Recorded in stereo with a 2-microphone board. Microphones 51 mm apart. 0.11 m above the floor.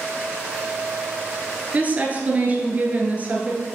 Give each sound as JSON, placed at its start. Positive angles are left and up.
{"t": 1.7, "sound": "a woman speaking", "side_deg": -30, "distance_m": 1.7}